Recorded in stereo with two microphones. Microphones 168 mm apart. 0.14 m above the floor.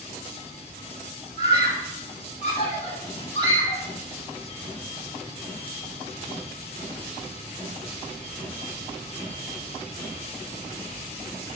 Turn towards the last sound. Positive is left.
turn(degrees=40)  # may be behind; listen again after turning